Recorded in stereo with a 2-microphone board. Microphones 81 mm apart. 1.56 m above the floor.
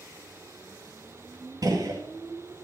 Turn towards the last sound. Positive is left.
turn(degrees=-50)  # may be behind; listen again after turning